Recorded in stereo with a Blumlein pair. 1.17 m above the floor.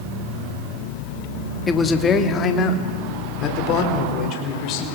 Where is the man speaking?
15° left, 2.5 m; by 4.9 s 40° left, 5.5 m.